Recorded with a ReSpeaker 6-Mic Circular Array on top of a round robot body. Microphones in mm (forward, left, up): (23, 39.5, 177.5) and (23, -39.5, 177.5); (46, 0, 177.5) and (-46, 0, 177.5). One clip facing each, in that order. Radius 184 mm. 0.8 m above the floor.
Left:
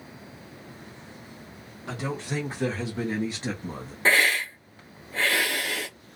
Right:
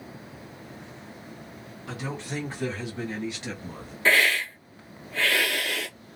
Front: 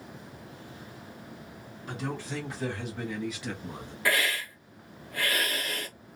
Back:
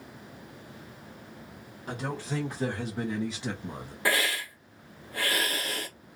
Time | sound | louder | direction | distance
1.9 | a man speaking | left 3 dB, back 1 dB | 140° left | 1.5 m
4.0 | a hiss | even, even | 130° left | 1.2 m